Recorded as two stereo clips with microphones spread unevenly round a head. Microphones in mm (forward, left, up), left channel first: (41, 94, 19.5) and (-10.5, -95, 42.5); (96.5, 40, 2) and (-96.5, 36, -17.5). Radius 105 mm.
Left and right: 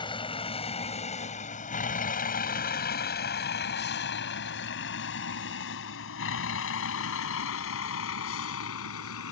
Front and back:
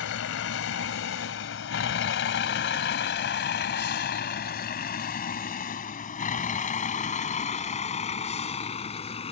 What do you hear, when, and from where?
0.0 s a vehicle: 5° left; by 9.3 s 60° left